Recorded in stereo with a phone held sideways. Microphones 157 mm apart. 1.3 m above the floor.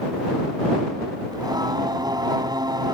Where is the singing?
25° right (ahead or behind).